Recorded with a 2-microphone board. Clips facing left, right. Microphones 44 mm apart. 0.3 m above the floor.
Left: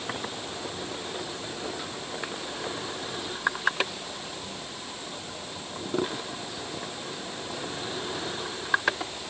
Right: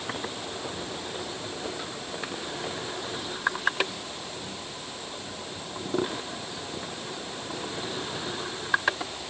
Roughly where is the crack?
I don't hear a crack.